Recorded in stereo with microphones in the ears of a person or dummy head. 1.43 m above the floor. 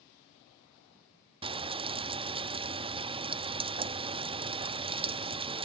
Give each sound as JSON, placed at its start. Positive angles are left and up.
{"t": 1.4, "sound": "frying", "side_deg": -25}